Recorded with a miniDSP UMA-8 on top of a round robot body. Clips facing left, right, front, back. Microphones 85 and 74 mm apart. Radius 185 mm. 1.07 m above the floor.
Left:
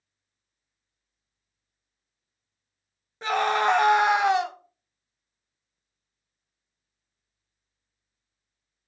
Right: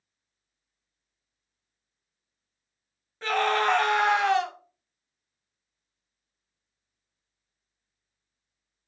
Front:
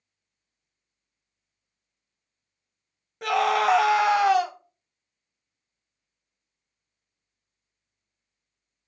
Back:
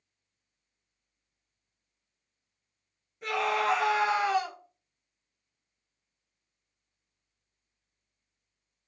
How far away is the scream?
About 0.7 m.